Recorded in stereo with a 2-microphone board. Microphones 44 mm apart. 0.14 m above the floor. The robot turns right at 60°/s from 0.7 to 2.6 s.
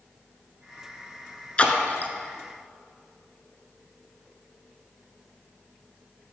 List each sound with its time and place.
1.6 s a splash: 30° left (ahead or behind), 0.8 m; by 2.1 s 45° left (ahead or behind), 0.8 m